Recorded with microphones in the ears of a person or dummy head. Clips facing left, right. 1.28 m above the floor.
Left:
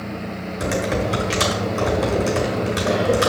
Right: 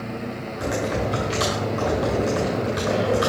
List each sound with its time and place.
0.6 s typing on a keyboard: 30° left (ahead or behind), 1.3 m